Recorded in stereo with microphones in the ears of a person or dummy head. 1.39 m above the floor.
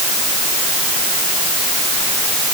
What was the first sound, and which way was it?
Only background noise.